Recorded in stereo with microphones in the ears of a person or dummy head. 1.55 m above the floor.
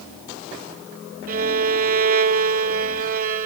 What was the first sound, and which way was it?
A violin, 50° right (ahead or behind).